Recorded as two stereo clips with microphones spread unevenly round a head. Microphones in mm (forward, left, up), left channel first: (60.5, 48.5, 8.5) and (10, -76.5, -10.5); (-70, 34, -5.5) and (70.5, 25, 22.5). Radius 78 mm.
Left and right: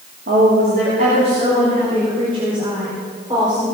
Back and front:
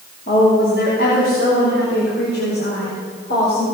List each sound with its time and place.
0.3 s a woman speaking: 145° right, 3 m; by 3.6 s 175° left, 5 m